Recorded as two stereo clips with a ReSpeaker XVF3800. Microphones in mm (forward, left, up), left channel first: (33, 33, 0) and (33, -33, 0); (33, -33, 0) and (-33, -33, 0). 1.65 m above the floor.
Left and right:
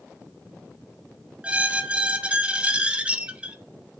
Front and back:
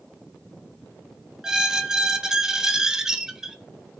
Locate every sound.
1.4 s a squeak: 115° right, 0.5 m